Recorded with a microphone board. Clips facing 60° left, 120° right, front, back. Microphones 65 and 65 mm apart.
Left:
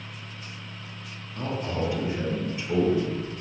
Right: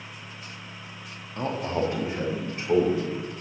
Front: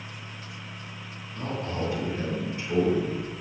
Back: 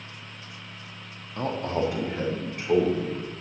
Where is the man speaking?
170° right, 1.2 m; by 3.3 s 160° right, 3 m.